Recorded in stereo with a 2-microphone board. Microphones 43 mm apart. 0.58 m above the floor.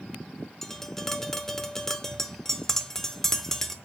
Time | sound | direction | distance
0.6 | tapping | 10° left (ahead or behind) | 0.7 m